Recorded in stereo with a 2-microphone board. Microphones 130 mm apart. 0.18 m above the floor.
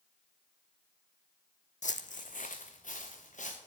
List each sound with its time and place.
1.8 s footsteps: 75° left (ahead or behind), 0.6 m